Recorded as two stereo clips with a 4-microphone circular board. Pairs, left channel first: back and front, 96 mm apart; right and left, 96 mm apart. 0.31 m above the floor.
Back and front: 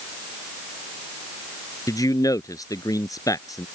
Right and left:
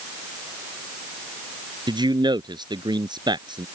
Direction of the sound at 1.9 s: 125° left.